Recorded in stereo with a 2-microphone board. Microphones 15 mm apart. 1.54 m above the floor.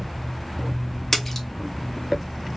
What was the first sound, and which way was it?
A splash, 10° left (ahead or behind).